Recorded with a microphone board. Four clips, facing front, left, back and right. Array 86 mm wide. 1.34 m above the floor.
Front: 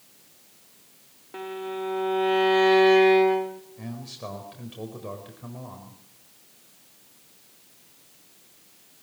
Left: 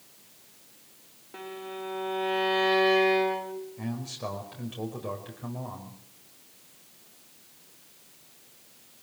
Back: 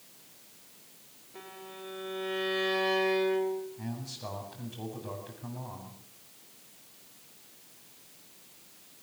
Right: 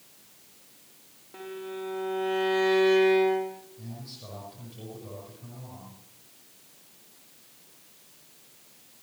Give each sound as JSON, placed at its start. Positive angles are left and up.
{"t": 1.3, "sound": "a violin", "azimuth_deg": 15, "distance_m": 2.5}
{"t": 3.8, "sound": "a man speaking", "azimuth_deg": 50, "distance_m": 5.0}